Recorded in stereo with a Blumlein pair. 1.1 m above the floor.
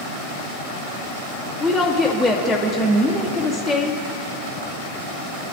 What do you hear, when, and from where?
1.6 s a woman speaking: straight ahead, 1.1 m